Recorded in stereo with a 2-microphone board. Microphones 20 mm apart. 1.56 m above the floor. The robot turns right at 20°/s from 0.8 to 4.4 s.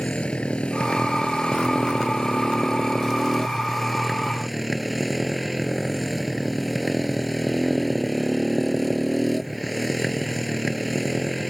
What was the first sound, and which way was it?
A motorcycle, 110° left.